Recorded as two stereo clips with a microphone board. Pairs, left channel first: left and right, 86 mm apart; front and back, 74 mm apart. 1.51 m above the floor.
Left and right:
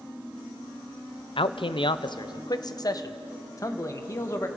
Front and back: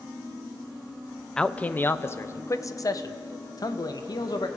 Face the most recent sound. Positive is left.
turn(degrees=30)